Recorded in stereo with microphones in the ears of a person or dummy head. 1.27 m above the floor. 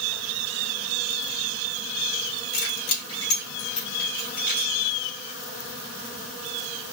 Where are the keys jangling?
85° left, 2.5 m; by 4.7 s 35° left (ahead or behind), 1.9 m.